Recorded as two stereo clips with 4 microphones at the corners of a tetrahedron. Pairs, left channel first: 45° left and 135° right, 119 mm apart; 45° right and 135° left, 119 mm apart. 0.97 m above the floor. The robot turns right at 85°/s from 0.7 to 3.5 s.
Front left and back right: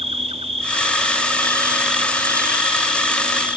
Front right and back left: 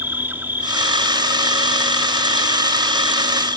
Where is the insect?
155° right; by 3.6 s 85° left.